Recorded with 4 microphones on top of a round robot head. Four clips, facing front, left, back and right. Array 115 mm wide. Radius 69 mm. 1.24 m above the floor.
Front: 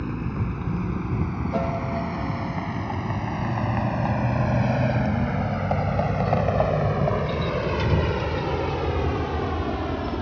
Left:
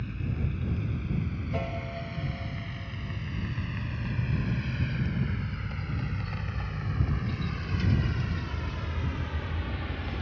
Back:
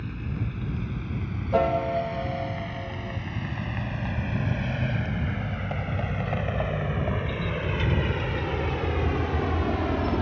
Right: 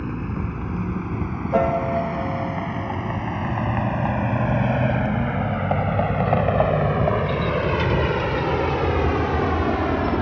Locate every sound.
0.0 s a vehicle: 55° right; by 10.2 s 100° right
1.5 s a piano: 115° right